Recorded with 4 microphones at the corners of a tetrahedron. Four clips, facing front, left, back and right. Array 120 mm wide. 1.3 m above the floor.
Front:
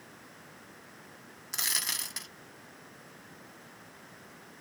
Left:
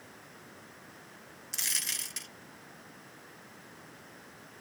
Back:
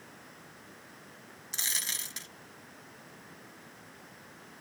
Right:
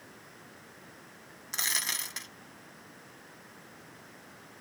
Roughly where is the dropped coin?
Ahead right.